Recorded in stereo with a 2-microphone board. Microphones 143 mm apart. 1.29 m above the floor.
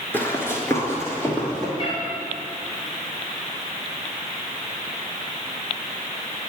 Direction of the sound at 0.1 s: 15° left (ahead or behind).